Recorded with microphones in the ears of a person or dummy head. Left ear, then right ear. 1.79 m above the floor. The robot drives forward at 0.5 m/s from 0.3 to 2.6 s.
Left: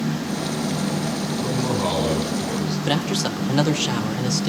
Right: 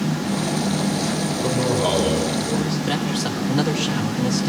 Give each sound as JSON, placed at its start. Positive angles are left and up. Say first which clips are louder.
{"t": 1.4, "sound": "a man speaking", "louder": "right 3 dB", "side_deg": -10, "distance_m": 7.0}
{"t": 2.9, "sound": "a man speaking", "louder": "left 1 dB", "side_deg": 85, "distance_m": 2.0}